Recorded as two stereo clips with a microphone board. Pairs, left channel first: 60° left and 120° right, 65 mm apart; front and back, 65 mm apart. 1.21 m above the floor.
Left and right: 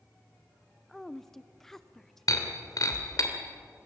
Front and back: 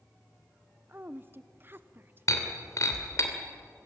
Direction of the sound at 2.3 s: 35° left.